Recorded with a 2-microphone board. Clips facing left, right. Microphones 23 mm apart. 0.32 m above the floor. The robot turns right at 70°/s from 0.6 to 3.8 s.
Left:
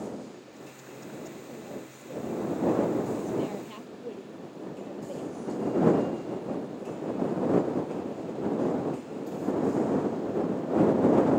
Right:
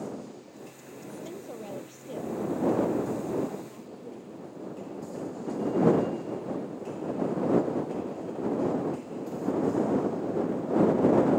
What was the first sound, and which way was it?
A woman speaking, 105° right.